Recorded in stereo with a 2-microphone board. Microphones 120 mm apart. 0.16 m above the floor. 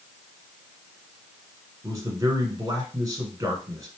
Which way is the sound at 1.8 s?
30° right (ahead or behind).